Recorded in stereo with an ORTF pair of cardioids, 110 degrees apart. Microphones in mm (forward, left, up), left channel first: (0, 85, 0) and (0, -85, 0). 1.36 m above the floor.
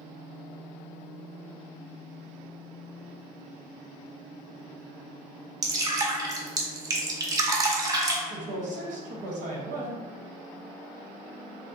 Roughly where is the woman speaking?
Ahead right.